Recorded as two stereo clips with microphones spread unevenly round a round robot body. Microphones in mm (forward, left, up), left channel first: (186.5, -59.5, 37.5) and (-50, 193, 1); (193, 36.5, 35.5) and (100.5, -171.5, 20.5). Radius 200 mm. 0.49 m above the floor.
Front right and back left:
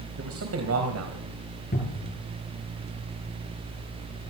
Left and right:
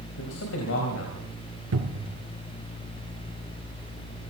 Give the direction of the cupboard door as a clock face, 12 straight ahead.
4 o'clock.